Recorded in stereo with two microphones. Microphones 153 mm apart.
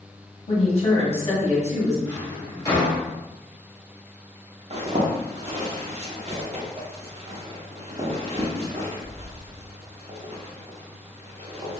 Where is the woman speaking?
45° left (ahead or behind), 1.5 m.